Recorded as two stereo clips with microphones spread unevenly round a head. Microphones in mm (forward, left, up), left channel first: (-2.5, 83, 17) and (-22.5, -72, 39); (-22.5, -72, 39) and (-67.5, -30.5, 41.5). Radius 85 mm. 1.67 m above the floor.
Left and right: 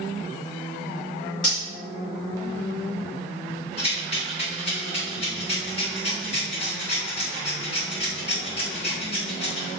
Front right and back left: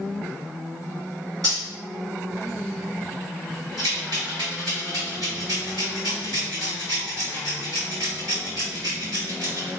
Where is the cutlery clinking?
115° left, 1.4 m.